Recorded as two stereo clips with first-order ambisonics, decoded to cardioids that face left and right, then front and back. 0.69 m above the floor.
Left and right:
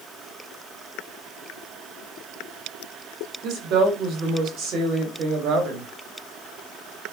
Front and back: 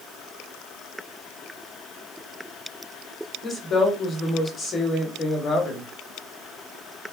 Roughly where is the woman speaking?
Ahead right.